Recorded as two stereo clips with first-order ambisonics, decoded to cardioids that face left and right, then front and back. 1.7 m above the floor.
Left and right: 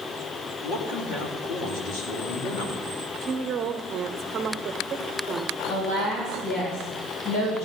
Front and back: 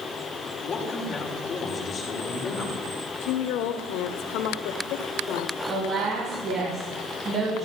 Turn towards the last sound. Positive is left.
turn(degrees=120)